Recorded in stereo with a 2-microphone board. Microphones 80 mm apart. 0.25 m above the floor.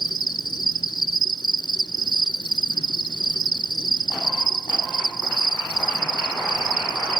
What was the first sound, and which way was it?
An insect, 70° left (ahead or behind).